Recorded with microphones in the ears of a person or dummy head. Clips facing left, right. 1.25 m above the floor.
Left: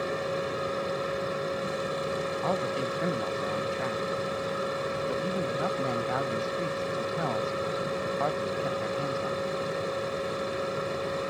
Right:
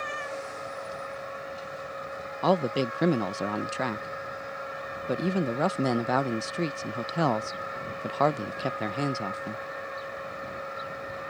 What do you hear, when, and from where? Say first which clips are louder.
0.0 s a machine running: left 6 dB; 75° left (ahead or behind)
2.4 s a man speaking: right 8 dB; 70° right (ahead or behind)